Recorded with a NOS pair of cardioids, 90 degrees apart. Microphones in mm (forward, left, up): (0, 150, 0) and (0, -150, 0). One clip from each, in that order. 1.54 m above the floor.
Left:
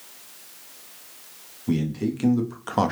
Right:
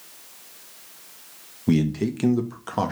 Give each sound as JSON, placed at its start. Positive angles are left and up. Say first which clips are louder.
{"t": 1.7, "sound": "a man speaking", "louder": "right 3 dB", "azimuth_deg": -35, "distance_m": 0.8}